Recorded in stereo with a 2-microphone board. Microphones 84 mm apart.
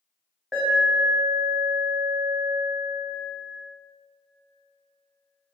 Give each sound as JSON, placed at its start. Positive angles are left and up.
{"t": 0.5, "sound": "an alarm", "side_deg": -5, "distance_m": 0.9}